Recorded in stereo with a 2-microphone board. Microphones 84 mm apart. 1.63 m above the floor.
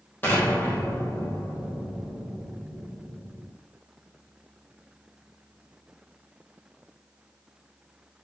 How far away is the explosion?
About 2 m.